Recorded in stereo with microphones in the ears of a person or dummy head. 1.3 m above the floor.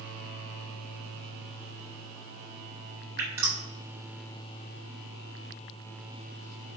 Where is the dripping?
15° right (ahead or behind), 1.7 m.